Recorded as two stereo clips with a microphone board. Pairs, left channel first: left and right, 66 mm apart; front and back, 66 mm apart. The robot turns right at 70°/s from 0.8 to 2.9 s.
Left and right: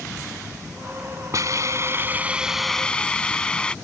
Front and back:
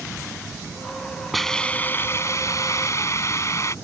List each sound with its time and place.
1.3 s a hiss: 90° right; by 3.8 s 20° left